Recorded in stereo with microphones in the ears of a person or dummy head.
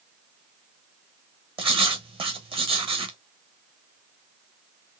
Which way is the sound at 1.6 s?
30° right (ahead or behind).